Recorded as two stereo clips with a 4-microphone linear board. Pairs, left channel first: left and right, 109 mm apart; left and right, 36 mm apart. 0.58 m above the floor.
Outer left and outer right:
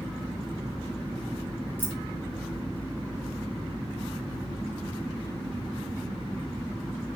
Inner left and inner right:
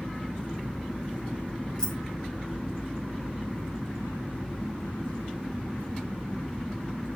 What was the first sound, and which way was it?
Keys jangling, 20° left (ahead or behind).